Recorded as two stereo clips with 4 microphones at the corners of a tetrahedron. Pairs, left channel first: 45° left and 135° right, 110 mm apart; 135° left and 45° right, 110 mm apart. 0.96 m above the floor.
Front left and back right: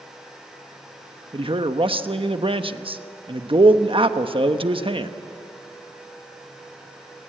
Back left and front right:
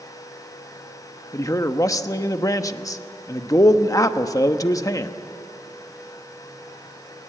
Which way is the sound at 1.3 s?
170° right.